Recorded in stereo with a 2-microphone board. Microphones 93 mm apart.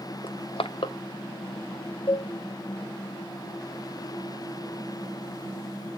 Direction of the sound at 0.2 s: 70° left (ahead or behind).